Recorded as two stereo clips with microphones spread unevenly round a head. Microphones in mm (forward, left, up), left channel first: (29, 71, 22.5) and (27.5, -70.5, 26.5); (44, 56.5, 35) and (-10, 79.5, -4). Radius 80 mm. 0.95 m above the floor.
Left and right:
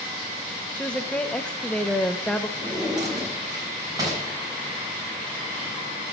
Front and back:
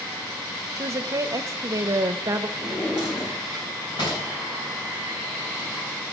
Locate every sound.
0.8 s a woman speaking: 170° left, 0.6 m
2.6 s a drawer: 25° right, 4 m